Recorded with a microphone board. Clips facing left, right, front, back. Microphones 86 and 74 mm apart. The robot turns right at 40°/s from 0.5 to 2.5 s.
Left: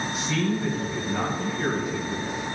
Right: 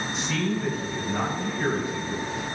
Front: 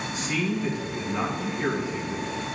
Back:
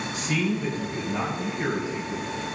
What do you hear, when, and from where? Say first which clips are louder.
0.1 s a man speaking: left 1 dB, back 1 dB; 170° left, 3 m; by 2.2 s 120° right, 3 m